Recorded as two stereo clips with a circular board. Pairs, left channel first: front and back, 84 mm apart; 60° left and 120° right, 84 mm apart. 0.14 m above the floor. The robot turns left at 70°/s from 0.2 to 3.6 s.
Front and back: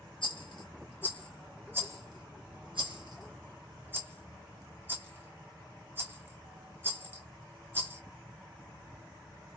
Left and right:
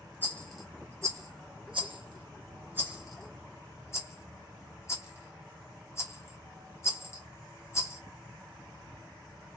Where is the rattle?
5° right, 1.2 m; by 8.0 s 115° left, 1.2 m.